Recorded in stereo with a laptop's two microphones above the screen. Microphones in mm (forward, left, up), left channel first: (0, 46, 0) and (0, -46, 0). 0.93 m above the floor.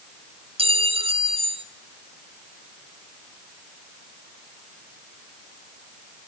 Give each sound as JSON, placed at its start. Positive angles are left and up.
{"t": 0.6, "sound": "a clink", "side_deg": -75, "distance_m": 2.5}